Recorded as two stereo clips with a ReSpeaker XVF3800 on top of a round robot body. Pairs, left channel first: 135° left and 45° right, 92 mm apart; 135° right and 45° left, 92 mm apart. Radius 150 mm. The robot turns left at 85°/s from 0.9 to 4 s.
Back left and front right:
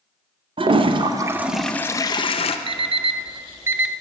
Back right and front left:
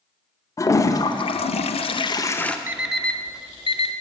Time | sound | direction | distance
0.6 | a toilet flushing | 75° right | 0.5 m
2.7 | an alarm clock | 25° right | 0.7 m